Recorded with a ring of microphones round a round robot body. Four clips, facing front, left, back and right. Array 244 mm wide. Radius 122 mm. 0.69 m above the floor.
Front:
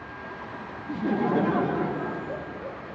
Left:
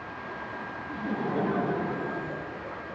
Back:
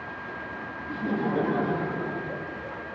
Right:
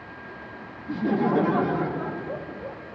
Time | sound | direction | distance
0.9 | laughter | 65° right | 0.7 m